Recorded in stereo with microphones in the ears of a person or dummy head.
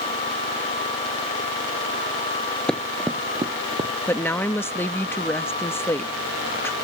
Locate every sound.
2.7 s running footsteps: 5° left (ahead or behind); by 3.9 s 30° right (ahead or behind)
4.1 s a woman speaking: 10° left (ahead or behind)